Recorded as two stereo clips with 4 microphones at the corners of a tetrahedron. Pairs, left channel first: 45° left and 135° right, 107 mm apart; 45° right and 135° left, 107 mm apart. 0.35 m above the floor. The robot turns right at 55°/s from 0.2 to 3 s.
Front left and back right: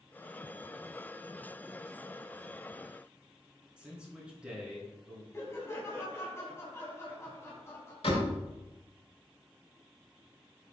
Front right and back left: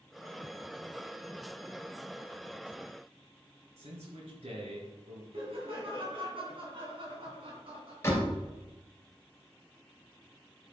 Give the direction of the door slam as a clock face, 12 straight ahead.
11 o'clock.